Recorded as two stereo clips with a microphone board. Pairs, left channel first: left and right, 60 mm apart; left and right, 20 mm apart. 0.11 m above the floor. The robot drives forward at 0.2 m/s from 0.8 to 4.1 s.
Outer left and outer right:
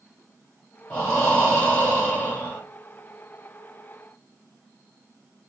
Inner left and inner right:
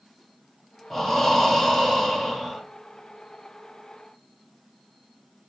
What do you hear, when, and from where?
0.9 s breathing: 20° left (ahead or behind), 1.7 m; by 2.6 s 25° left (ahead or behind), 1.4 m